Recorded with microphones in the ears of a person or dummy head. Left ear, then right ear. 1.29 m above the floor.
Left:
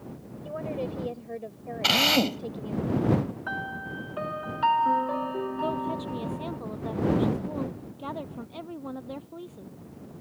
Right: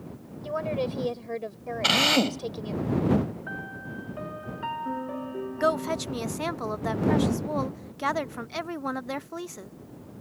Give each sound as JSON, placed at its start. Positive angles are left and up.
{"t": 0.4, "sound": "a woman speaking", "side_deg": -40}
{"t": 1.8, "sound": "a drill", "side_deg": 5}
{"t": 3.5, "sound": "a piano", "side_deg": 50}
{"t": 5.6, "sound": "a woman speaking", "side_deg": -70}